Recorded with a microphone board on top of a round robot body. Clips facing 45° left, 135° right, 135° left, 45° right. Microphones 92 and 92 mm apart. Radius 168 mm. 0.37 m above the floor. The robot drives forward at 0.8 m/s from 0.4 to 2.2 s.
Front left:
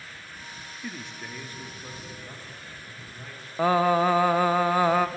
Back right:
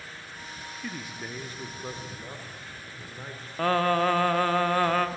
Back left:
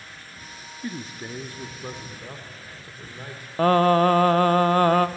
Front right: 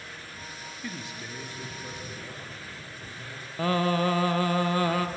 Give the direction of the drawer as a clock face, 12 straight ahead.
No drawer in this recording.